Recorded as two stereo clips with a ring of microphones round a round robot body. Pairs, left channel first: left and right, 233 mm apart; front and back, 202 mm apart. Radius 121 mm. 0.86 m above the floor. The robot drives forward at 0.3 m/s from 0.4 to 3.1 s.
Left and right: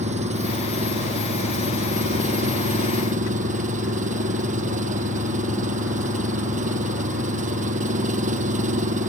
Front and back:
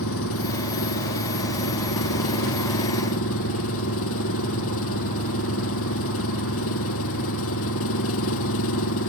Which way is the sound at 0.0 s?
30° right.